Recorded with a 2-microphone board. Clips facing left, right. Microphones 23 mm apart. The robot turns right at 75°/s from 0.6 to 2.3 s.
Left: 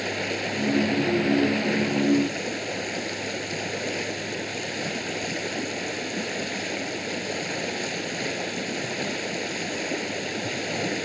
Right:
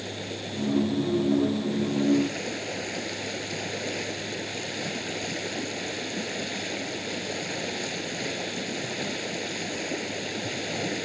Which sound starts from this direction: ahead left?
Running water, at 0.0 s.